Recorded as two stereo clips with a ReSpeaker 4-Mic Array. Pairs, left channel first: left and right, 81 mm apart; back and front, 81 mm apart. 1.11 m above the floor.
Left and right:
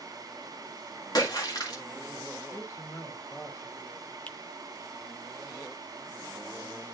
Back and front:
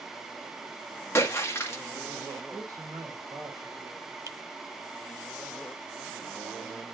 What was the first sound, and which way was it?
A splash, 125° left.